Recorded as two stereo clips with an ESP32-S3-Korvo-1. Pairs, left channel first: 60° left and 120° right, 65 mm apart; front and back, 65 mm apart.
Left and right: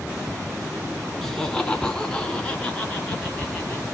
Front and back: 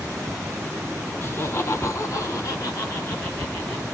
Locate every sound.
1.2 s laughter: 20° right, 1.6 m; by 3.9 s 10° right, 3.5 m